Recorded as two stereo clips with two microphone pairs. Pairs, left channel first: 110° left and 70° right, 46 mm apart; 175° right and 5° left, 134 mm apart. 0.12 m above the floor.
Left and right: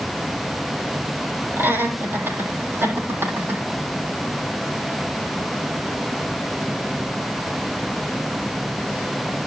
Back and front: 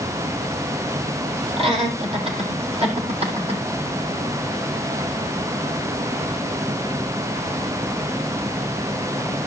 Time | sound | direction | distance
1.6 | laughter | 35° right | 3.5 m